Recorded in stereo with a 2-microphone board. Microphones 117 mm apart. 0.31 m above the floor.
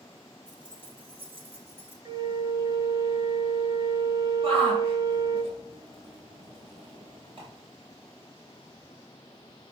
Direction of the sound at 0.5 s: 40° right (ahead or behind).